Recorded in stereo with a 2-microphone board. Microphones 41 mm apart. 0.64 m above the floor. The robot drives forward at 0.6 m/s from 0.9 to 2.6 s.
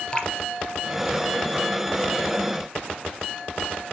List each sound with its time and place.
0.1 s dripping: 25° left (ahead or behind), 2.5 m